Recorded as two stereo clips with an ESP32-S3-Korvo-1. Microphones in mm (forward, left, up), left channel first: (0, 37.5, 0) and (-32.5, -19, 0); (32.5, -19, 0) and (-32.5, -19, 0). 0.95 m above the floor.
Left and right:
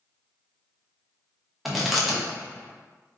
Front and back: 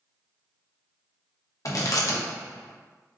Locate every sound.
1.6 s chewing: 35° right, 0.6 m